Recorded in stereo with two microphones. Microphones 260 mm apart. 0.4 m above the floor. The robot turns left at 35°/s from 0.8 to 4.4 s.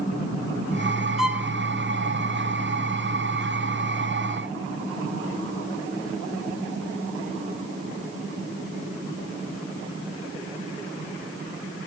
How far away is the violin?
About 0.9 m.